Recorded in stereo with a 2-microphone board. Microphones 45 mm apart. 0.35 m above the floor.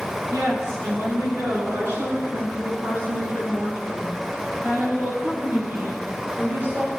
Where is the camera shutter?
I don't hear a camera shutter.